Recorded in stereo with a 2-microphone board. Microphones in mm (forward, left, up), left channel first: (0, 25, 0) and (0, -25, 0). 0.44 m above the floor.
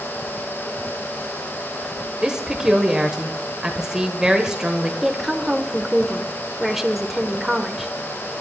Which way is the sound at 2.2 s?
10° right (ahead or behind).